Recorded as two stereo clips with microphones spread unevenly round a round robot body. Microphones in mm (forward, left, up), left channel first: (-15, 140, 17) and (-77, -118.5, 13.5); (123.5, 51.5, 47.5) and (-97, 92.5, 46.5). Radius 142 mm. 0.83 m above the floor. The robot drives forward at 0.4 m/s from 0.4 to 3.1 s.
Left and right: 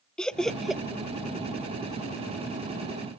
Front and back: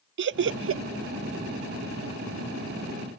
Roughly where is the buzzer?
I don't hear a buzzer.